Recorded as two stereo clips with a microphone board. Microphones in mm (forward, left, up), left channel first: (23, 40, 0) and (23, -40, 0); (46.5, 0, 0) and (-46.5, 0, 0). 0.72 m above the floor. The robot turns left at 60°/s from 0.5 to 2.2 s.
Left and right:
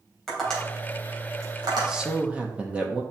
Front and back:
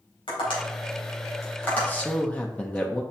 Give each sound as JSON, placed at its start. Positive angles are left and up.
{"t": 0.3, "sound": "tapping", "azimuth_deg": 5, "distance_m": 3.5}
{"t": 1.8, "sound": "a man speaking", "azimuth_deg": -20, "distance_m": 0.9}